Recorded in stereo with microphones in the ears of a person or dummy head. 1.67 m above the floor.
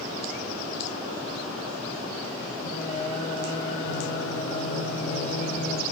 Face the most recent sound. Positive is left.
turn(degrees=35)  # may be behind; listen again after turning